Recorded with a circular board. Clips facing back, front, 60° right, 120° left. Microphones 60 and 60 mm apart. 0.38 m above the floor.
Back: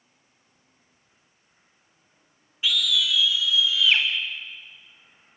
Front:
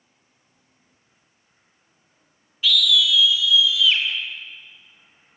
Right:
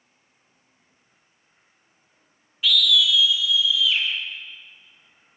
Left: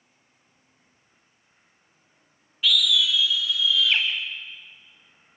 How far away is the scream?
About 1.1 m.